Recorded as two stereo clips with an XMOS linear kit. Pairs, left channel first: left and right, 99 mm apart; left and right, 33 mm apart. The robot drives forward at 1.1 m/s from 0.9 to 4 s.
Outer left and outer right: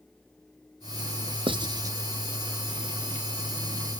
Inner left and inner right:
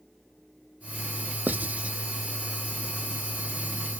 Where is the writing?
55° right (ahead or behind), 0.5 m; by 2.0 s 35° right (ahead or behind), 0.8 m.